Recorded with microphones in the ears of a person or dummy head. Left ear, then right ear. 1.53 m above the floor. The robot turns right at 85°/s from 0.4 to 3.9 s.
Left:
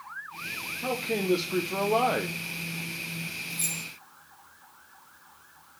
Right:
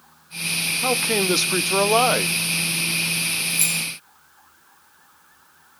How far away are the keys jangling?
About 1.5 m.